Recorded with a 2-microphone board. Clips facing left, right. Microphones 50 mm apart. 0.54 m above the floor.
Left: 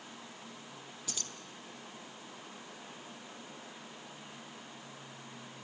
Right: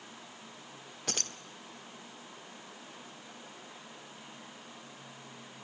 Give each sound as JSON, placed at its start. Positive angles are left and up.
{"t": 1.1, "sound": "keys jangling", "side_deg": -60, "distance_m": 0.8}